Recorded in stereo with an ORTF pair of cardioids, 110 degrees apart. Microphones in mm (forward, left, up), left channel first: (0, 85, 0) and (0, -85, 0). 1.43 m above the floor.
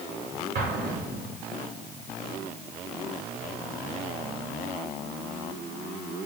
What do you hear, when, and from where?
0.6 s an explosion: 60° right, 5.5 m